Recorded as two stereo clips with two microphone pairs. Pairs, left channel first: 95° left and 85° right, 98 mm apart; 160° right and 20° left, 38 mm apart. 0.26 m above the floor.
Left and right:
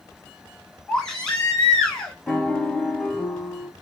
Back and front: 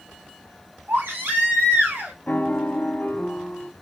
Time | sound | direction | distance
0.9 | a baby crying | 10° left | 1.6 m
2.3 | a piano | 175° left | 0.8 m